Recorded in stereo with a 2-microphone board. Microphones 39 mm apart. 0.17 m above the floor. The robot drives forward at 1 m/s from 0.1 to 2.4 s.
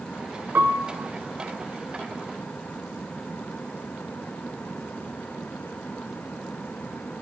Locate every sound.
0.6 s a piano: 60° right (ahead or behind), 1.1 m; by 0.9 s 55° right (ahead or behind), 1.1 m